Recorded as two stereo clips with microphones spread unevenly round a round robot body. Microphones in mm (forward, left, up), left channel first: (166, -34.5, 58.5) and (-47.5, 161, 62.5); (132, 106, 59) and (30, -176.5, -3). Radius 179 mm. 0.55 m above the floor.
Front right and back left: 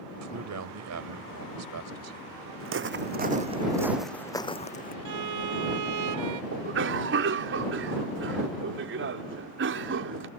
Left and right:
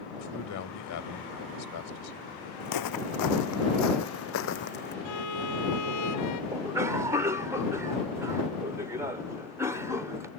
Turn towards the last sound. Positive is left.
turn(degrees=180)